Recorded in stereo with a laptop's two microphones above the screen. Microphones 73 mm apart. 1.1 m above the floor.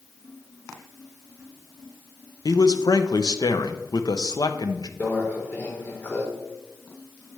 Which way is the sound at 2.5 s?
65° left (ahead or behind).